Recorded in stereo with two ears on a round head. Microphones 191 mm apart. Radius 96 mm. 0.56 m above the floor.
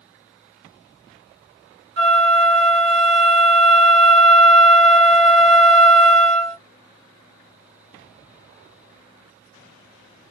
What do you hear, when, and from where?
2.0 s a flute: 55° right (ahead or behind), 1.1 m